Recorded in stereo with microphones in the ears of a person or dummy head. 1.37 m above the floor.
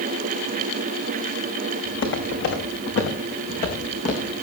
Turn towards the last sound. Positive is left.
turn(degrees=40)  # may be behind; listen again after turning